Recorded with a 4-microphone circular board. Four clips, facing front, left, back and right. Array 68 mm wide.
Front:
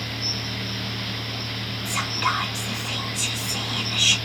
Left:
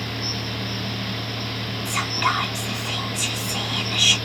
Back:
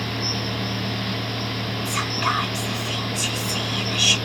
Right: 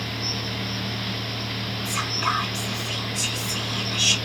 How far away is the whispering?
About 1.9 m.